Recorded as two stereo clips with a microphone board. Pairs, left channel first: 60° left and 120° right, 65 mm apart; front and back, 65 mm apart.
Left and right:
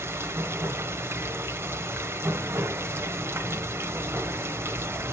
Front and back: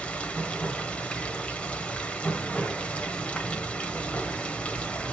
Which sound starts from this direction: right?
Running water, at 0.0 s.